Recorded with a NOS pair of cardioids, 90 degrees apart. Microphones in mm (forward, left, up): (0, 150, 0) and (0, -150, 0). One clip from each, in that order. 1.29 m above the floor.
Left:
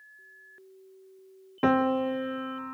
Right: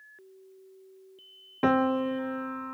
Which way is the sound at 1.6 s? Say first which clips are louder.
Even; straight ahead.